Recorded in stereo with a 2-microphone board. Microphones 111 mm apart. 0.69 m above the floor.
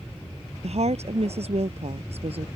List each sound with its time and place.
0.6 s a woman speaking: 65° right (ahead or behind); by 2.5 s 60° right (ahead or behind)